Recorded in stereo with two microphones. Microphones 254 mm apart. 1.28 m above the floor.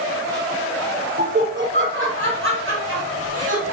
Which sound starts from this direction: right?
Laughter, at 1.2 s.